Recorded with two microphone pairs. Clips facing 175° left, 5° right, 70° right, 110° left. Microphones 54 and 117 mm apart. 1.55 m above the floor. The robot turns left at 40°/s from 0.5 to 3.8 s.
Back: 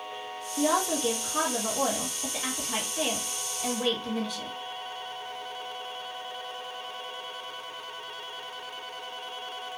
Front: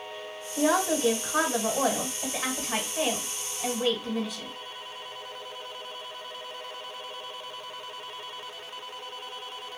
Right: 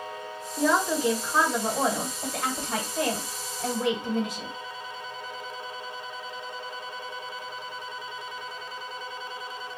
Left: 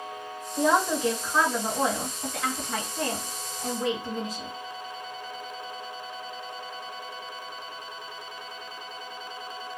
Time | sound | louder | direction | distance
0.6 | a woman speaking | front 2 dB, left 1 dB | 35° left | 1.4 m